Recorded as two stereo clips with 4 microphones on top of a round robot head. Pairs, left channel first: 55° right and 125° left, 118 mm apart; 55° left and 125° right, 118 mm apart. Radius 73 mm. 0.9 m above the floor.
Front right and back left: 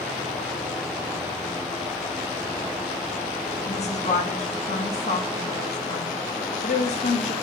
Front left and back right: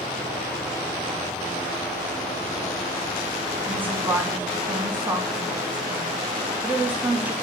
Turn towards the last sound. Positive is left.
turn(degrees=-50)